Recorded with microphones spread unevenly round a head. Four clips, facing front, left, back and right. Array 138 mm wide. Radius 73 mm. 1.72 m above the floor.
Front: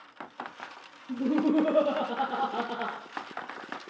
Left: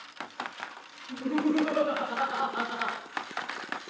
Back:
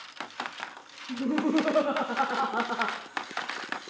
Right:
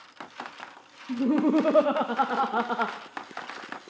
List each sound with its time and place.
1.1 s laughter: 70° right, 1.8 m; by 3.0 s 90° right, 2.5 m